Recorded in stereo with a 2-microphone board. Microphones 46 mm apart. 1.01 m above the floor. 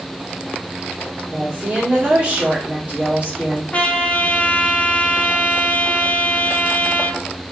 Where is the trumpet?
30° left (ahead or behind), 0.8 m.